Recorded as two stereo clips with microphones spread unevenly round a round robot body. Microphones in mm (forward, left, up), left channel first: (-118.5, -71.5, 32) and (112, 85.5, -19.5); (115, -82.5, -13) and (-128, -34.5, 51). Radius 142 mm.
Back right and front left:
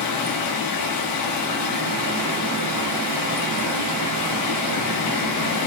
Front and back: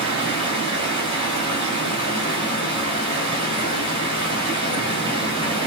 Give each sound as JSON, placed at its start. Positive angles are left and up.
{"t": 0.0, "sound": "running water", "azimuth_deg": -155, "distance_m": 8.5}